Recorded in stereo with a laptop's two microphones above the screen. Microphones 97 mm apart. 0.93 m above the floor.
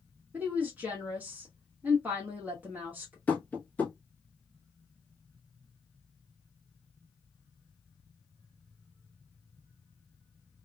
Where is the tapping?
15° left (ahead or behind), 1.3 m.